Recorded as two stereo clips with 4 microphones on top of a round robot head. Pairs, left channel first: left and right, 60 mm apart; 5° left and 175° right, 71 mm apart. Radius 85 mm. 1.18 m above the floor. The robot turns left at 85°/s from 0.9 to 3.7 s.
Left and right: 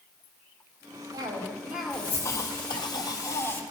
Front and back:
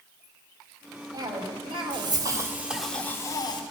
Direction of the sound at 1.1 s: 120° right.